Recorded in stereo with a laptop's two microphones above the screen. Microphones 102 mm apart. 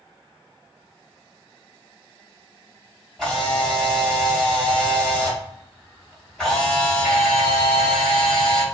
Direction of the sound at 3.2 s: 5° left (ahead or behind).